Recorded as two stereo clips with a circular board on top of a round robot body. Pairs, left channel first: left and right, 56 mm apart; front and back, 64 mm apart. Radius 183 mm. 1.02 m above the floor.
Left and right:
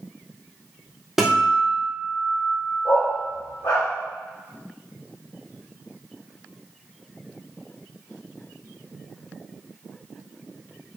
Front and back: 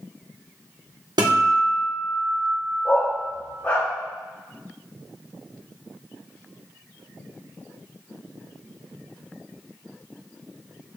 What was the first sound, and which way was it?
A guitar, 175° right.